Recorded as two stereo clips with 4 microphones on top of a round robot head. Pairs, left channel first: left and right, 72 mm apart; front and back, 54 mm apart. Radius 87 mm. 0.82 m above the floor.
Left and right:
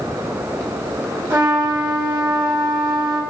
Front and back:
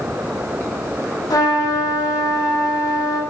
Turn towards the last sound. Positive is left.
turn(degrees=-30)